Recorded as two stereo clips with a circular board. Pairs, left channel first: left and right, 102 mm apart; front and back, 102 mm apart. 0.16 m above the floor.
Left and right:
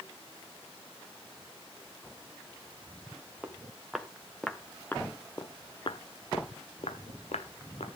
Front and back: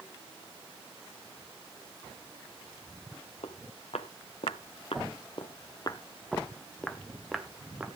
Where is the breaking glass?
No breaking glass in this recording.